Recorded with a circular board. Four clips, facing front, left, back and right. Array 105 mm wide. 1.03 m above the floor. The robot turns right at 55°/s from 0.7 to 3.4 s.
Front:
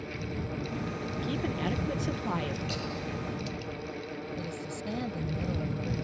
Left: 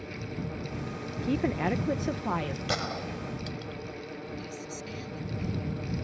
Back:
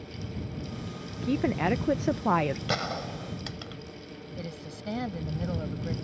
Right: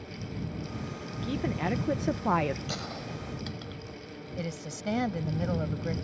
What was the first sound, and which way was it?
A woman speaking, 145° left.